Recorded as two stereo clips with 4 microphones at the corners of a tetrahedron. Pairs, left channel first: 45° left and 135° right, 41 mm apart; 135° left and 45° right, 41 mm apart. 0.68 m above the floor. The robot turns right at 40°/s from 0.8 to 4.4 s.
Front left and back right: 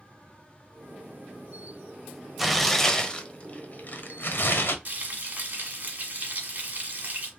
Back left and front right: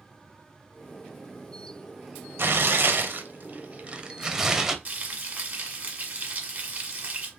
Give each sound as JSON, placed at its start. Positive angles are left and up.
{"t": 2.4, "sound": "tearing paper", "azimuth_deg": -50, "distance_m": 0.7}
{"t": 4.8, "sound": "frying", "azimuth_deg": -90, "distance_m": 1.4}